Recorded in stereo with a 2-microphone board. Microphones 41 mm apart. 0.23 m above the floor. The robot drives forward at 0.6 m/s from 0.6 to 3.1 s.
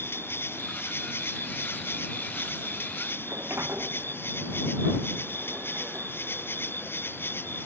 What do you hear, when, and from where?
0.0 s an insect: 65° left (ahead or behind); by 7.7 s 60° left (ahead or behind)
3.2 s a sliding door: 80° right